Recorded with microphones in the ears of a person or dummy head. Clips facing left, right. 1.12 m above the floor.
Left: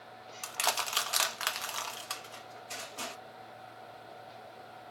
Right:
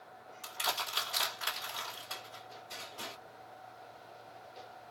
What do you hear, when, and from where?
0.4 s crushing: 75° left (ahead or behind), 1.3 m